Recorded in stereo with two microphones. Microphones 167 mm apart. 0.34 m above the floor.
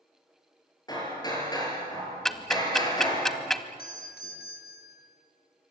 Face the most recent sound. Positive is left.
turn(degrees=75)  # may be behind; listen again after turning